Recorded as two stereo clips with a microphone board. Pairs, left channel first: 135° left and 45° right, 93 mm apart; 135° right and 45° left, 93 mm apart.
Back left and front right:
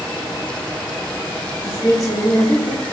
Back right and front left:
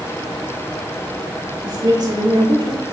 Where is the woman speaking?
80° left, 5.5 m.